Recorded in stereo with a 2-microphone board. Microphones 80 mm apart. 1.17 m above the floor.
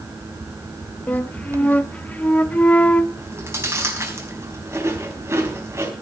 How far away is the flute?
About 0.7 m.